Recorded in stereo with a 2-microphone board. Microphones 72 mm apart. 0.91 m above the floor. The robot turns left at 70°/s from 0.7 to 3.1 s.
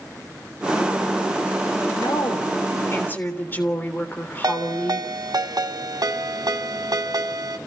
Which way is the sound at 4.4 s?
75° right (ahead or behind).